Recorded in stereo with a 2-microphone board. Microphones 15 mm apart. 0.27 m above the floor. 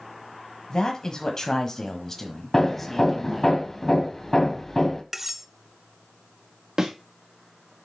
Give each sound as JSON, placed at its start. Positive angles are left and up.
{"t": 0.7, "sound": "a man speaking", "side_deg": 50, "distance_m": 1.4}
{"t": 2.5, "sound": "hammering", "side_deg": 30, "distance_m": 1.6}
{"t": 5.1, "sound": "cutlery clinking", "side_deg": -15, "distance_m": 0.6}
{"t": 6.8, "sound": "a thud", "side_deg": -45, "distance_m": 2.5}